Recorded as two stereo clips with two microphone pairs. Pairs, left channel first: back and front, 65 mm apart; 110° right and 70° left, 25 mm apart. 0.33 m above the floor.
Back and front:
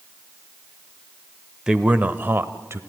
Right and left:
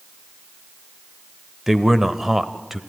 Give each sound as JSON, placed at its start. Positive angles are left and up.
{"t": 1.7, "sound": "a man speaking", "azimuth_deg": 40, "distance_m": 0.8}